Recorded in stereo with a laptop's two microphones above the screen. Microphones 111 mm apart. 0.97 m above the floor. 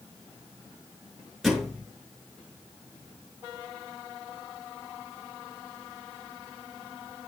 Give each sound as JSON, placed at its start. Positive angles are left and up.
{"t": 1.4, "sound": "a thud", "side_deg": 0, "distance_m": 5.5}